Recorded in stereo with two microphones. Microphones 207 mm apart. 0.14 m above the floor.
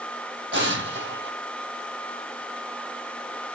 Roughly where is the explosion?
Right.